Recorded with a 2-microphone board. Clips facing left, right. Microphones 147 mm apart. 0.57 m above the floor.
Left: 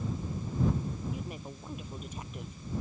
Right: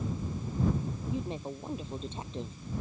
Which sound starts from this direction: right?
A woman speaking, at 1.1 s.